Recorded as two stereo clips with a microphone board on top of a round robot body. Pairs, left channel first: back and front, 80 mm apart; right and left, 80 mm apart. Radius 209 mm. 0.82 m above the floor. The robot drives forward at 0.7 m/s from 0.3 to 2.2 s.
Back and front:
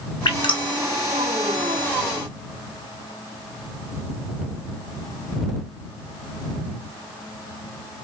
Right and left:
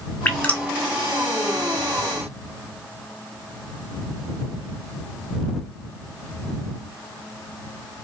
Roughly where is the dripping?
Behind.